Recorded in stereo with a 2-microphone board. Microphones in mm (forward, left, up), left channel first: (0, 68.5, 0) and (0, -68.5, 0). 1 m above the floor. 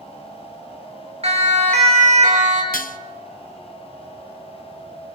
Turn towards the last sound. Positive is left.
turn(degrees=85)